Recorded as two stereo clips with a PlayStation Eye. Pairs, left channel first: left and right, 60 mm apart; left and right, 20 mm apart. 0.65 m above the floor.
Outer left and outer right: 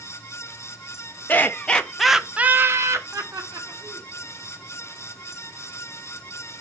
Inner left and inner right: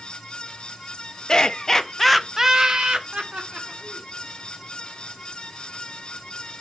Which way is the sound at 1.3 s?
30° left (ahead or behind).